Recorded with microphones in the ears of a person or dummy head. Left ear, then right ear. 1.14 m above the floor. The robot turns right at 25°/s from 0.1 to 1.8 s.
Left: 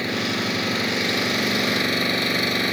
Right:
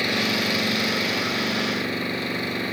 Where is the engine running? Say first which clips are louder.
Right 2 dB; 25° right; by 2.7 s 20° left.